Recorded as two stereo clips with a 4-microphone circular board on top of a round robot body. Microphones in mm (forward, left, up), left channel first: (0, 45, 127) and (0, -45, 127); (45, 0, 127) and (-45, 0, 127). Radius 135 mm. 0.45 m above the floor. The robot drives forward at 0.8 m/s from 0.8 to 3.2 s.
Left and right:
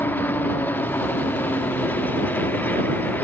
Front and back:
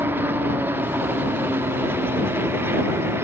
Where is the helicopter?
135° left; by 3.2 s 140° left.